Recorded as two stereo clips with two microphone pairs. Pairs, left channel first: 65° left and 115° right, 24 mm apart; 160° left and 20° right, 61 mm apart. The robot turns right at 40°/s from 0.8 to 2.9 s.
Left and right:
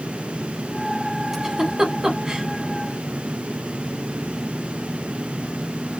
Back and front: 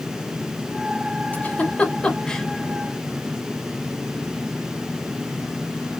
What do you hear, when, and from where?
1.3 s a giggle: straight behind, 0.8 m; by 2.5 s 135° right, 0.8 m